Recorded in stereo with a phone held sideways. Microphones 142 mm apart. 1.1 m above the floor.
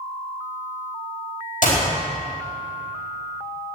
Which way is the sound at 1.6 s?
65° left (ahead or behind).